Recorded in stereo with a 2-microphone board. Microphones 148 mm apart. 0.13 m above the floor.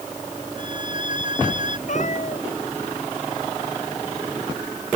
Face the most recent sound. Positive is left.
turn(degrees=55)  # may be behind; listen again after turning